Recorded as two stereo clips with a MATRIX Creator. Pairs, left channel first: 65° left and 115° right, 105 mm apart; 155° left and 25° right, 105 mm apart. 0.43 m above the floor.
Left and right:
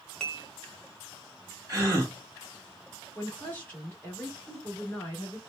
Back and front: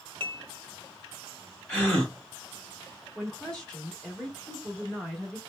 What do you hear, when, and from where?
0.2 s dishes clattering: 15° right, 0.7 m
1.7 s a gasp: 135° right, 1.6 m
3.1 s a woman speaking: 95° left, 1.0 m